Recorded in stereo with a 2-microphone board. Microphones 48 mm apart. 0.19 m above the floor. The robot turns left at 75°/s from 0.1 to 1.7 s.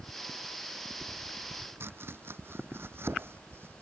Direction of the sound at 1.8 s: 55° right (ahead or behind).